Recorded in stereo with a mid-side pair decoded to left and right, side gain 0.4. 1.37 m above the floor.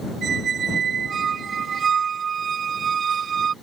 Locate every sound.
0.2 s a squeak: 60° right